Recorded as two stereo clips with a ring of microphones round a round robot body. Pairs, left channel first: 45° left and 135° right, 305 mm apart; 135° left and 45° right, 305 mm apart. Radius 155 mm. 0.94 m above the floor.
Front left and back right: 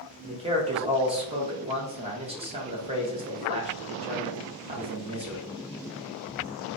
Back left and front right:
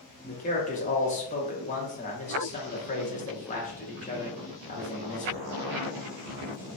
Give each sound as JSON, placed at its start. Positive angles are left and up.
{"t": 0.2, "sound": "a man speaking", "azimuth_deg": 170, "distance_m": 0.8}